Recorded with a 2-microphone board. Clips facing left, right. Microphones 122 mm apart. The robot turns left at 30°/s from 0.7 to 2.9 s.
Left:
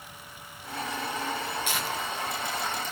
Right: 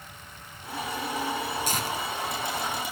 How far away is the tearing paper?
About 5 m.